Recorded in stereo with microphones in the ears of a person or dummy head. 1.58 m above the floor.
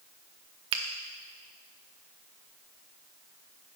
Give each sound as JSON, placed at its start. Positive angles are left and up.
{"t": 0.7, "sound": "a finger snap", "side_deg": -25, "distance_m": 0.5}